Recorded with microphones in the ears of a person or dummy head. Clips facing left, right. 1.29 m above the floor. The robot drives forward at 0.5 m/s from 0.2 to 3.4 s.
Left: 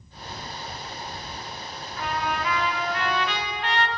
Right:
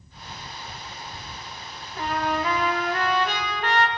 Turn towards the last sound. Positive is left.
turn(degrees=-50)  # may be behind; listen again after turning